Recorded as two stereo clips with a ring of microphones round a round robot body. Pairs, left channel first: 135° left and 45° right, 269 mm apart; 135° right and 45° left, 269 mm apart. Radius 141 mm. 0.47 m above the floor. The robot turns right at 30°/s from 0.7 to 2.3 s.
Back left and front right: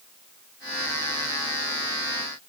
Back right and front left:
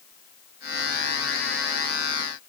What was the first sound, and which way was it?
Only background noise.